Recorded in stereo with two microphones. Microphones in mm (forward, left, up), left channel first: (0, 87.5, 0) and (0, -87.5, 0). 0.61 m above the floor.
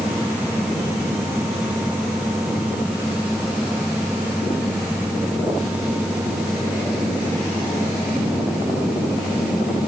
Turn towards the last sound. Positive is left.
No sound to turn to.